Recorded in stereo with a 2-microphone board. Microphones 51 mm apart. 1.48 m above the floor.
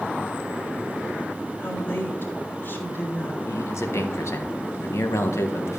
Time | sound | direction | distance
1.6 | a woman speaking | 45° left (ahead or behind) | 3.5 m
3.5 | a man speaking | 65° left (ahead or behind) | 1.5 m